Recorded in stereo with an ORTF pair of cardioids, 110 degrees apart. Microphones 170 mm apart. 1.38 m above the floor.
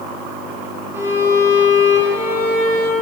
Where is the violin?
15° right, 2.5 m.